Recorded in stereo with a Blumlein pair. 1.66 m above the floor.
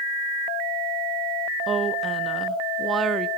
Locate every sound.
1.7 s a woman speaking: 20° right, 0.8 m